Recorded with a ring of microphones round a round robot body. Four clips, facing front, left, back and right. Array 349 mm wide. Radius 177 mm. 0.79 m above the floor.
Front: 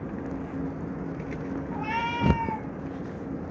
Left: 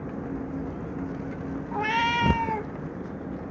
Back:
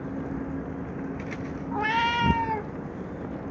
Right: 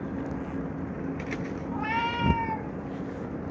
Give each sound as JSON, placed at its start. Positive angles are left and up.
{"t": 1.7, "sound": "a cat meowing", "azimuth_deg": 140, "distance_m": 1.0}